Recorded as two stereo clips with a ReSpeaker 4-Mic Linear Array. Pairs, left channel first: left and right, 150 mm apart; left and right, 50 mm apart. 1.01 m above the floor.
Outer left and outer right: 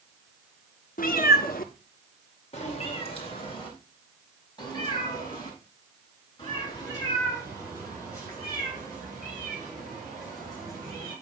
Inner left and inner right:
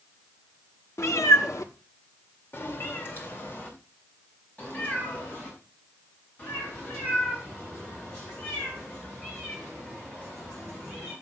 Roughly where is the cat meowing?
Left.